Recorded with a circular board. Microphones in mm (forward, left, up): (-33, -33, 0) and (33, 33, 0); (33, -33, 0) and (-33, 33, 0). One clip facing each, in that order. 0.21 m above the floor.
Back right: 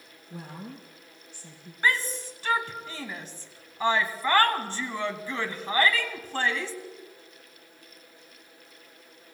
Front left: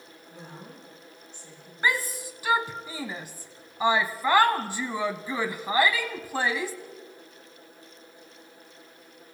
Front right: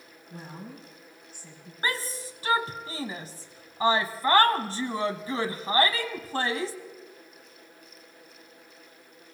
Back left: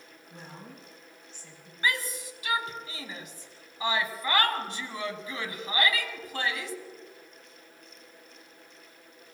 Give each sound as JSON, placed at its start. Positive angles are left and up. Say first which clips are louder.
{"t": 0.3, "sound": "a woman speaking", "louder": "back right 4 dB, front right 4 dB", "azimuth_deg": -125, "distance_m": 5.0}
{"t": 1.8, "sound": "a shout", "louder": "even, back left 1 dB", "azimuth_deg": -25, "distance_m": 1.1}